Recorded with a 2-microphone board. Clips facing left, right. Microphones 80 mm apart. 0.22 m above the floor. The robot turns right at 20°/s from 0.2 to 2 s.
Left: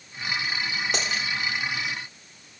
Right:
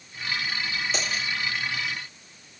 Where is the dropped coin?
60° left (ahead or behind), 6 m; by 1.2 s 65° left (ahead or behind), 6 m.